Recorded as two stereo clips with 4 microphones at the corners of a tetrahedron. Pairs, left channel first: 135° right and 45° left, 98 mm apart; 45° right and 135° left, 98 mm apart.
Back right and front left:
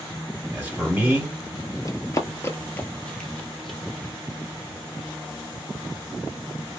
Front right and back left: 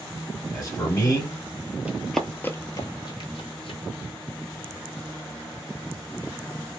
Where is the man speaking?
25° right, 1.7 m.